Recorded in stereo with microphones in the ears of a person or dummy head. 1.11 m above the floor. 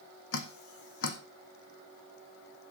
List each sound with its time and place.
0.3 s dripping: 75° left (ahead or behind), 1.4 m